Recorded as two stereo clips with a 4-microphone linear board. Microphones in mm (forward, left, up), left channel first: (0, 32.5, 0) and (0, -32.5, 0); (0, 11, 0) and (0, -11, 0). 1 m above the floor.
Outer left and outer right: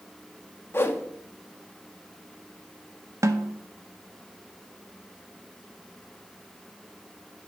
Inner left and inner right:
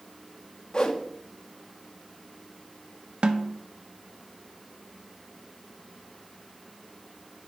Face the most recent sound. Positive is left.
turn(degrees=-55)  # may be behind; listen again after turning